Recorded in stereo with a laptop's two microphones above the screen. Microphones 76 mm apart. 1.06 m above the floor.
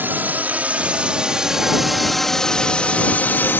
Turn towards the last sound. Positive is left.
turn(degrees=30)  # may be behind; listen again after turning